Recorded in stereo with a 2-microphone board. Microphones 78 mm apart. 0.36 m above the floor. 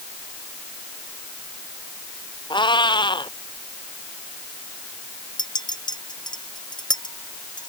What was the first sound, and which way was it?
A cat meowing, 85° left.